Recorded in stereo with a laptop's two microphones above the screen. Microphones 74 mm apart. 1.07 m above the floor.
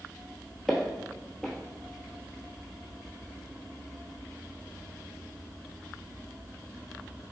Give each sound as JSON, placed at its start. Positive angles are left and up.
{"t": 0.7, "sound": "footsteps", "side_deg": 0, "distance_m": 1.1}